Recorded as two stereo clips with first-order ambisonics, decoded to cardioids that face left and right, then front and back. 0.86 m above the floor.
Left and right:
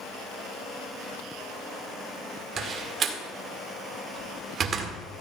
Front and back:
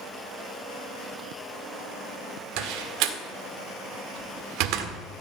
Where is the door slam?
150° right, 1.6 m.